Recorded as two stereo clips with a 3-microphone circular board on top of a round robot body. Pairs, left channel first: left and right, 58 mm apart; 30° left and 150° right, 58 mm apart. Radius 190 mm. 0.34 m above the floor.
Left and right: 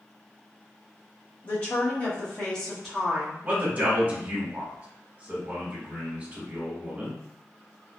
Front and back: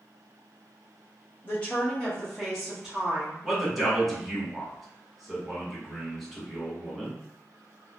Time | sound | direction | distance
1.4 | a woman speaking | 65° left | 1.6 m
3.4 | a man speaking | 60° right | 1.6 m